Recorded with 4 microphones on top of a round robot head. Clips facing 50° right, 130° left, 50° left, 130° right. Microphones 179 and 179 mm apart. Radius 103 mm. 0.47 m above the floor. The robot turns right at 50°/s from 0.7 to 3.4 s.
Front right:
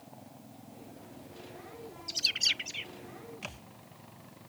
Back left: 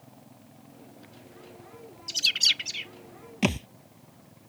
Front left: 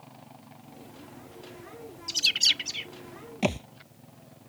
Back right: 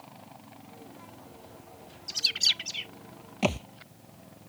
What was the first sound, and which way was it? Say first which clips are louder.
A bird: back left 1 dB, front left 3 dB; 85° left.